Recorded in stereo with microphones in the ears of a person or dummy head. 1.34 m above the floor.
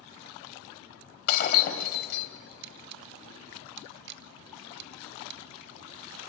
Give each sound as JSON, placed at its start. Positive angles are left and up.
{"t": 1.3, "sound": "breaking glass", "side_deg": 50, "distance_m": 3.0}
{"t": 2.6, "sound": "a camera shutter", "side_deg": -60, "distance_m": 1.0}